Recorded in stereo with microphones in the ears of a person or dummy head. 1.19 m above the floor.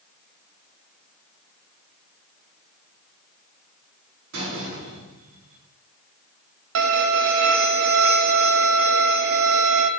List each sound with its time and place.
4.3 s a door slam: 80° right, 7.5 m
6.8 s a violin: 75° right (ahead or behind), 1.6 m